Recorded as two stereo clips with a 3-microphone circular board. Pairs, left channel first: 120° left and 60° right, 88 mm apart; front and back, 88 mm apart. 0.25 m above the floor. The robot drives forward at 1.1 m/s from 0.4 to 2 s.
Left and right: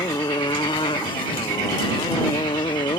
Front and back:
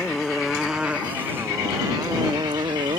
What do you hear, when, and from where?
0.0 s a motorcycle: 85° left; by 3.0 s 155° left